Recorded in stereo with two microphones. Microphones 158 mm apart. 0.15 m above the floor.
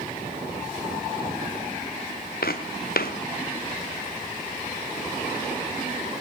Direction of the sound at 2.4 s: 75° left (ahead or behind).